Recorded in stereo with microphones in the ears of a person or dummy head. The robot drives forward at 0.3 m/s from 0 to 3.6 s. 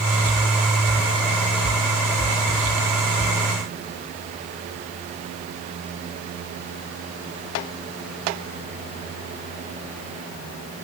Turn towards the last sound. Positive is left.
No sound to turn to.